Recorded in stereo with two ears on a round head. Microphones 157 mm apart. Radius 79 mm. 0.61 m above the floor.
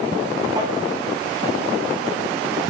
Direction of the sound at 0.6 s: 25° right (ahead or behind).